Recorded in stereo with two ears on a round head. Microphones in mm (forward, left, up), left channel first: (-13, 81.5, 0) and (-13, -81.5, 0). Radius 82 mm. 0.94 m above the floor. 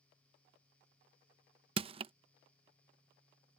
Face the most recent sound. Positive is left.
turn(degrees=-30)  # may be behind; listen again after turning